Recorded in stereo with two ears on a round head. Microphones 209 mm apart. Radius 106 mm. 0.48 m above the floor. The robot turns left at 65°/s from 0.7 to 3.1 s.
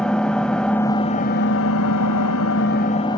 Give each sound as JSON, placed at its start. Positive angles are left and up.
{"t": 0.0, "sound": "an engine running", "azimuth_deg": 175, "distance_m": 1.4}